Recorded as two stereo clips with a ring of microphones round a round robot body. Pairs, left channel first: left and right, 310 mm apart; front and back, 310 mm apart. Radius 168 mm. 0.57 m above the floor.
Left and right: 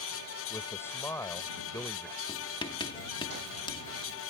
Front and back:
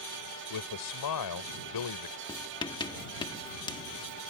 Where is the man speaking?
10° left.